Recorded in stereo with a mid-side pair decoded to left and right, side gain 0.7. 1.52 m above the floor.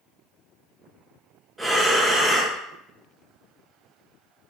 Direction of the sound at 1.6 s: 10° right.